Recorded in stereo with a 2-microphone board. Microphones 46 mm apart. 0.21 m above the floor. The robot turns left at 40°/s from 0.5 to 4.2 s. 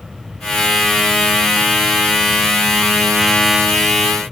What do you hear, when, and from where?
Only background noise.